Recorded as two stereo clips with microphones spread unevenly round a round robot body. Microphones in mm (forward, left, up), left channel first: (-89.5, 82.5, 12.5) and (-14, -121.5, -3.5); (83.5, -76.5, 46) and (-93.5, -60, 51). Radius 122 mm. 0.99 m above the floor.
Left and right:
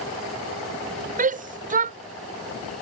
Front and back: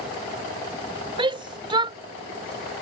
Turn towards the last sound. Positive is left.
turn(degrees=-120)